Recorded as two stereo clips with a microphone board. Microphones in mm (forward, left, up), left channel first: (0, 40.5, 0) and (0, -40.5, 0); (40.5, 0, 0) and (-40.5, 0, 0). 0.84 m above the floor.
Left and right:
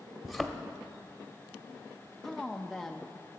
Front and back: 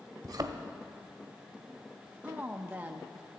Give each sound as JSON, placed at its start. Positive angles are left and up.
{"t": 0.2, "sound": "a thud", "azimuth_deg": 180, "distance_m": 0.8}
{"t": 2.2, "sound": "a woman speaking", "azimuth_deg": 170, "distance_m": 0.6}